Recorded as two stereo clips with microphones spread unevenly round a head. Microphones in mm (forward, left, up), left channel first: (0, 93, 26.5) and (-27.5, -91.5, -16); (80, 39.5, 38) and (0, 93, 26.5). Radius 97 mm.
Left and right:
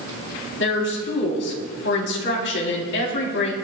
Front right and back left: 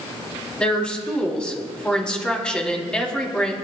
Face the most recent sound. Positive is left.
turn(degrees=45)